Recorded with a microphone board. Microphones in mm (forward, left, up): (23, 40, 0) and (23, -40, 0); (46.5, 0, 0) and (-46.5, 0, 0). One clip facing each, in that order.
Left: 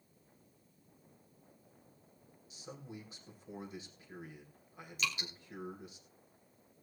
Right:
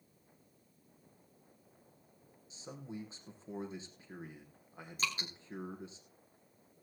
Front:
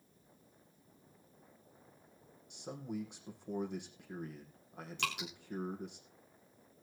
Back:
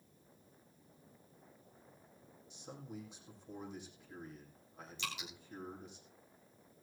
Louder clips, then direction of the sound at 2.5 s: Right 3 dB, front 7 dB; 30° right.